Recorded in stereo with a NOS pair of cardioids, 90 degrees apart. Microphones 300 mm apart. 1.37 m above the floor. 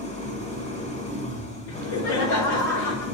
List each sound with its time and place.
0.0 s an engine running: 25° left, 2 m
1.7 s laughter: 65° left, 2.5 m